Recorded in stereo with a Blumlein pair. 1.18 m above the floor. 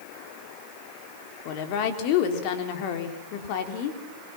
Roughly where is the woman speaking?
Ahead left.